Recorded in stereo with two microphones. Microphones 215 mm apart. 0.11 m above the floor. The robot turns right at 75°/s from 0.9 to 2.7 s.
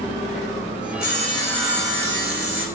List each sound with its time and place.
1.0 s sawing: 130° left, 6 m; by 2.7 s 105° right, 6 m